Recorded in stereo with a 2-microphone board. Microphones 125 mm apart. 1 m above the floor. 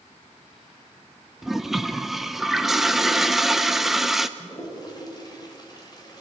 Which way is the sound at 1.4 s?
Centre (ahead or behind).